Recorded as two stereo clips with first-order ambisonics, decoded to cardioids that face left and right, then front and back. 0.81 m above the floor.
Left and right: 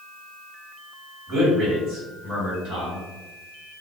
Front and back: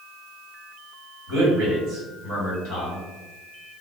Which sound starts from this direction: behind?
A man speaking, at 1.3 s.